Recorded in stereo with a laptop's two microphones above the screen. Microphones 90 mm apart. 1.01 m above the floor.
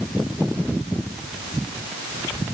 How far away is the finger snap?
No finger snap in this recording.